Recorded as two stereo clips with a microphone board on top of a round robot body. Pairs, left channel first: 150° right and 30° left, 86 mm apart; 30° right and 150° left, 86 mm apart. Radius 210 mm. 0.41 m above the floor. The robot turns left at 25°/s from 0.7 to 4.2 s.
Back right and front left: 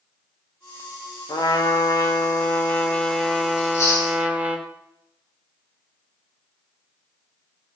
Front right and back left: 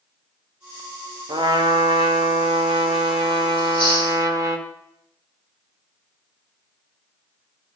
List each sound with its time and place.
1.3 s a trumpet: 175° left, 1.9 m; by 4.6 s 105° left, 1.9 m
3.6 s chewing: 160° left, 8.5 m; by 4.2 s 145° left, 8.5 m